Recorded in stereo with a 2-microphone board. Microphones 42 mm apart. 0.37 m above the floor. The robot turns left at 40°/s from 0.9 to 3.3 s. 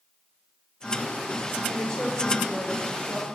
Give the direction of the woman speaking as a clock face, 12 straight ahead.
7 o'clock.